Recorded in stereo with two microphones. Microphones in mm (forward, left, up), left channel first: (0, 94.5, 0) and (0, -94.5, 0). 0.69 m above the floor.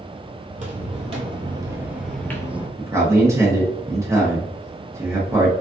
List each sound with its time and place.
0.5 s footsteps: 40° right (ahead or behind), 1.2 m; by 2.7 s 25° left (ahead or behind), 0.7 m
2.8 s a man speaking: 15° right (ahead or behind), 0.8 m